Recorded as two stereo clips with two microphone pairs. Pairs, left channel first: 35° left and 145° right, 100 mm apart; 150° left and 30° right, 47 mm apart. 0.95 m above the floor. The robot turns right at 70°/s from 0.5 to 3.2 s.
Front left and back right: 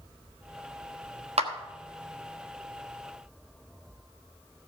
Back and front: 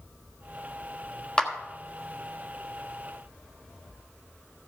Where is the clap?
140° right, 1.2 m; by 1.5 s 130° right, 1.2 m.